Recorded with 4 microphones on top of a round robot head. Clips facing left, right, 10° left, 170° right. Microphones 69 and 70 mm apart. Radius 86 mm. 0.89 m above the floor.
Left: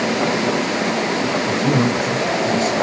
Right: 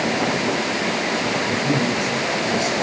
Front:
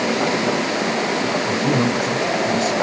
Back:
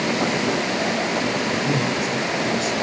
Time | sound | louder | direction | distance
1.5 | a man speaking | left 5 dB, front 3 dB | 45° left | 3.5 m